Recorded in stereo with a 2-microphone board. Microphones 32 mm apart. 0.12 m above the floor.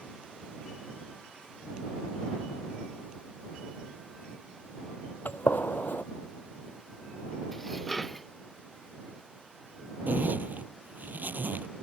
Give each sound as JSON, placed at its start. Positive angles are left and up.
{"t": 5.2, "sound": "a gunshot", "side_deg": 70}
{"t": 7.5, "sound": "dishes clattering", "side_deg": 5}
{"t": 10.1, "sound": "a zipper", "side_deg": -65}